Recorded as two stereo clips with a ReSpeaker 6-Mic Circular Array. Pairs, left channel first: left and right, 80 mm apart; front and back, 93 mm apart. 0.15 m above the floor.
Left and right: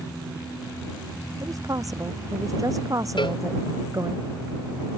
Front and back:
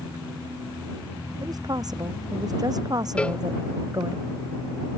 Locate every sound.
1.4 s a woman speaking: 135° right
3.2 s a cowbell: 80° left